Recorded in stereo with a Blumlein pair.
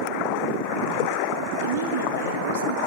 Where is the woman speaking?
60° right, 4 m.